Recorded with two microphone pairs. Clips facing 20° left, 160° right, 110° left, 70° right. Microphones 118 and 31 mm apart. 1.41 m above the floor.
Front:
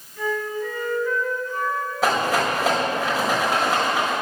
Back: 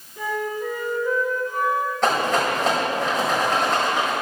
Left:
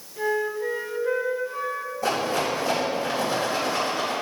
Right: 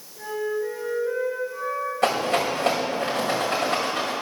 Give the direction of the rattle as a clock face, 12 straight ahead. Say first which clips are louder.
Front 1 dB, right 2 dB; 2 o'clock.